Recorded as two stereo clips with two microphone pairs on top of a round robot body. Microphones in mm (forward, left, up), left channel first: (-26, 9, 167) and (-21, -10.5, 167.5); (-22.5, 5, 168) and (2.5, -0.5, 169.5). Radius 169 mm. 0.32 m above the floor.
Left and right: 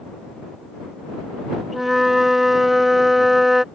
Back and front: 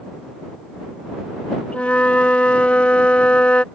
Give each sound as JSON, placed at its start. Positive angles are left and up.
{"t": 1.7, "sound": "a flute", "azimuth_deg": -155}